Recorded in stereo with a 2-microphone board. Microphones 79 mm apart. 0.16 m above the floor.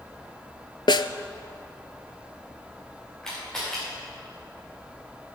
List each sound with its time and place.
0.9 s a snare drum: 75° left (ahead or behind), 0.5 m
3.2 s a camera shutter: 10° left (ahead or behind), 5 m